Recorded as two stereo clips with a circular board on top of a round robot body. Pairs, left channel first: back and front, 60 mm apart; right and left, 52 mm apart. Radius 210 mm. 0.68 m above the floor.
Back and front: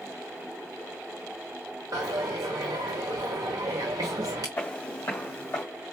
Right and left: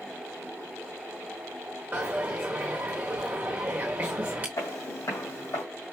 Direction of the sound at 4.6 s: 115° right.